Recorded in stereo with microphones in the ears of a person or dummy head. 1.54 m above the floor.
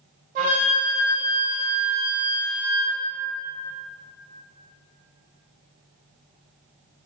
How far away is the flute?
About 0.6 m.